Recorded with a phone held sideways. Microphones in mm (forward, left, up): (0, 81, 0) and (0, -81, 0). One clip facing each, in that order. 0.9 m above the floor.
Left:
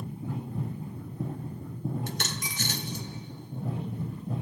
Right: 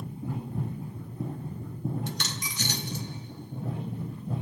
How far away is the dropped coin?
About 1.0 m.